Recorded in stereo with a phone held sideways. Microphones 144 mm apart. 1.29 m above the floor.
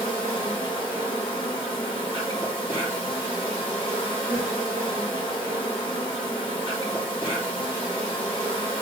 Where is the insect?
35° left (ahead or behind), 1.3 m.